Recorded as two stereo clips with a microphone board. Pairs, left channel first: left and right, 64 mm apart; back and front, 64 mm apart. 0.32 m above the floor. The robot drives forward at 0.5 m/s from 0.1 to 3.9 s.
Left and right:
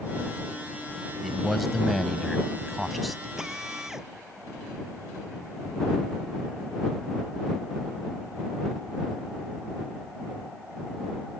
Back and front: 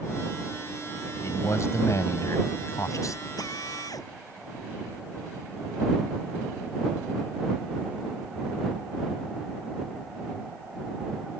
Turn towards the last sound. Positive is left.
turn(degrees=-175)